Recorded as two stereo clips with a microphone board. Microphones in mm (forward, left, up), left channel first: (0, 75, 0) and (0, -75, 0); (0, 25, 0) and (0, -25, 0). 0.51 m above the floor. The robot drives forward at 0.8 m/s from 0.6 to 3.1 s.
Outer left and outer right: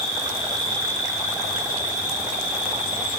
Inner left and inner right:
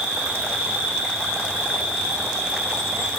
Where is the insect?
30° right (ahead or behind), 2 m; by 3.2 s 15° right (ahead or behind), 4 m.